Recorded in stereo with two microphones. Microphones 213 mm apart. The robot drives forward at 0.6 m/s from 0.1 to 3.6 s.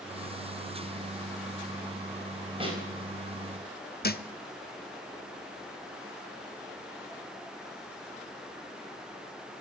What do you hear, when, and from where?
2.6 s a snare drum: 25° right (ahead or behind), 4 m
4.0 s a thud: 50° left (ahead or behind), 0.6 m